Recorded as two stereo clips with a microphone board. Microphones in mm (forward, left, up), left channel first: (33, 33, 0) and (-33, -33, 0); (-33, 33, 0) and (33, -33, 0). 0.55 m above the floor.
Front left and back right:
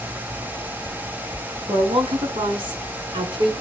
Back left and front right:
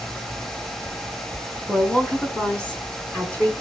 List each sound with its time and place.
1.7 s a woman speaking: 145° right, 6.5 m; by 3.5 s 150° right, 7.5 m